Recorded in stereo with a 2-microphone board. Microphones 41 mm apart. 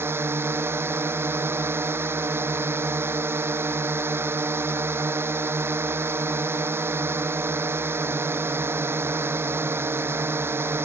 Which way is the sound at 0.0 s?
80° right.